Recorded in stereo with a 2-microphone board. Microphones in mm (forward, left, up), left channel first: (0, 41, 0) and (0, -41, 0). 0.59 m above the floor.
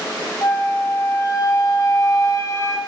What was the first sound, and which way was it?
A flute, 40° left (ahead or behind).